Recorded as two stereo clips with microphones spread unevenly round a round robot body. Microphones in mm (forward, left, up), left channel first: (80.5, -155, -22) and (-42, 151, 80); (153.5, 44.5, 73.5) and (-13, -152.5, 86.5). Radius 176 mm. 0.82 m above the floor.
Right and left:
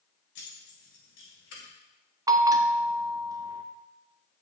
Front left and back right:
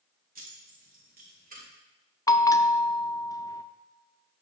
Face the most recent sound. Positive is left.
turn(degrees=0)